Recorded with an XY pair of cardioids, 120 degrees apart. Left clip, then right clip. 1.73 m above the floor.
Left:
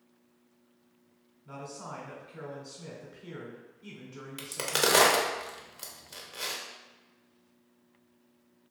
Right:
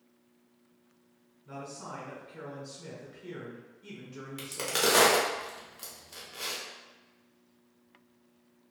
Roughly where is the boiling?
I don't hear boiling.